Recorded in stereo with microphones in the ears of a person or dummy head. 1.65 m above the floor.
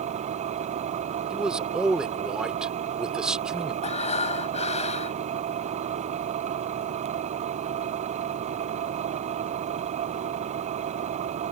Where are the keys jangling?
I don't hear keys jangling.